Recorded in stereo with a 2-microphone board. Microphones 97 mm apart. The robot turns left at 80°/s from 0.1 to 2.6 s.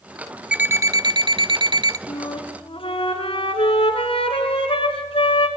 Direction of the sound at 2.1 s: 140° left.